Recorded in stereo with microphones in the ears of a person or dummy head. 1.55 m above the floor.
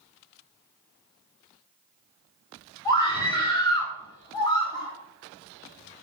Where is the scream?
20° left (ahead or behind), 5 m.